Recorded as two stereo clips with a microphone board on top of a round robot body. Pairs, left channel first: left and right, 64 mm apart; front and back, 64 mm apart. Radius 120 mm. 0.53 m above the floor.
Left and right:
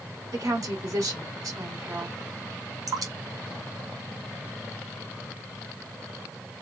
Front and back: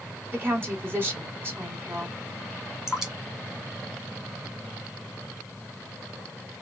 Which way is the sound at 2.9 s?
100° right.